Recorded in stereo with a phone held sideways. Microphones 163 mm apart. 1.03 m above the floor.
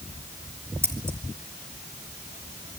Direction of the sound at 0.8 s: 15° right (ahead or behind).